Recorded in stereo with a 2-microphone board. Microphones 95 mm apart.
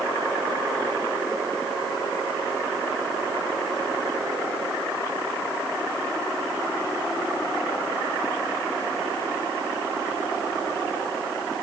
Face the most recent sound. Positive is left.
No sound to turn to.